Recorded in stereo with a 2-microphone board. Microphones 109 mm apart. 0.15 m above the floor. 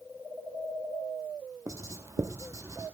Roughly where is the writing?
Right.